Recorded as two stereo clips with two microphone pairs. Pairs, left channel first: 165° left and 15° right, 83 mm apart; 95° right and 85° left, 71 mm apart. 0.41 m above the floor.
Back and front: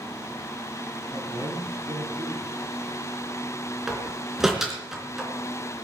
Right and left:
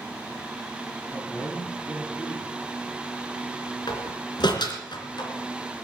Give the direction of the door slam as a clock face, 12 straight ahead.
3 o'clock.